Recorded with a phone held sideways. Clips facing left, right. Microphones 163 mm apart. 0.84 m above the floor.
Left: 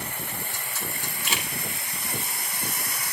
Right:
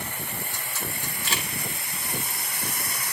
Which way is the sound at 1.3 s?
20° left (ahead or behind).